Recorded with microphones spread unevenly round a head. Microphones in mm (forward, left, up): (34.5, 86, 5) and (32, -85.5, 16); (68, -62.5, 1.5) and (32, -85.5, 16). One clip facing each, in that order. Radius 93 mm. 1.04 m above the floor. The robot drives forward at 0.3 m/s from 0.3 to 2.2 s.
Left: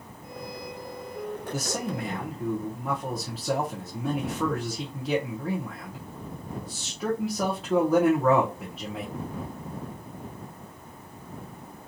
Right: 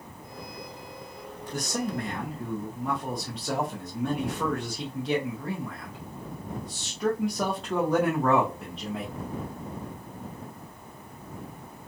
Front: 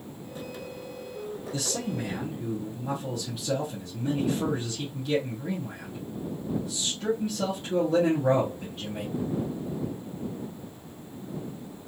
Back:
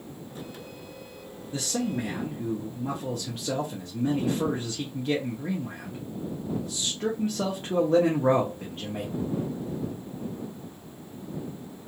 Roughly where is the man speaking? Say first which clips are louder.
Right 4 dB, back 4 dB; behind.